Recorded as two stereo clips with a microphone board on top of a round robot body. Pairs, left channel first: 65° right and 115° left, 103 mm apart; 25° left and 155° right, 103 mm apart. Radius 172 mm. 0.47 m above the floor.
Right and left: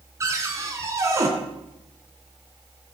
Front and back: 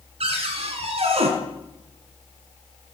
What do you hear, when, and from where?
0.2 s a cupboard door: 175° left, 2.5 m